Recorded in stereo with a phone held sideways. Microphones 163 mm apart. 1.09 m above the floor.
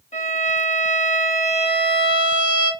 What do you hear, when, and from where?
0.1 s a violin: 45° left (ahead or behind), 3 m